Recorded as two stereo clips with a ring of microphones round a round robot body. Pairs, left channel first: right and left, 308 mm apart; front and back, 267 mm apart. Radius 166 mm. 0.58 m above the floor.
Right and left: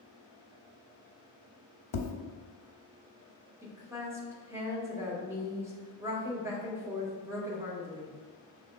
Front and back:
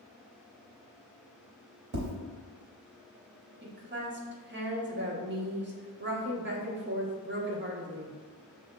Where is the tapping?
120° right, 0.7 m.